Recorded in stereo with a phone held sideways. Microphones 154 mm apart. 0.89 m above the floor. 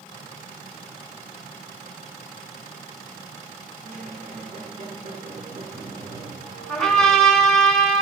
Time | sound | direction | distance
3.8 | a squeak | 70° right (ahead or behind) | 1.8 m
6.7 | a trumpet | 5° left (ahead or behind) | 1.4 m